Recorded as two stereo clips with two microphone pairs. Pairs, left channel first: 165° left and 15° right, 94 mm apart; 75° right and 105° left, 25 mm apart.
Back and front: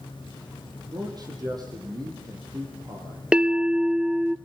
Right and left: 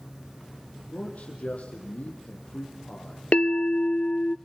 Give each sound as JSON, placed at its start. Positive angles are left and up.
{"t": 0.9, "sound": "a man speaking", "azimuth_deg": -55, "distance_m": 5.0}
{"t": 3.3, "sound": "a bell", "azimuth_deg": -95, "distance_m": 0.6}